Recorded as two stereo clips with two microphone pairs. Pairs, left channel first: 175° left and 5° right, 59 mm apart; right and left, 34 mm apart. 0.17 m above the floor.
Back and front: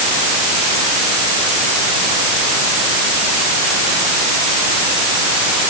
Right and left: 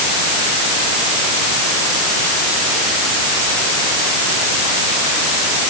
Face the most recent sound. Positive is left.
No sound to turn to.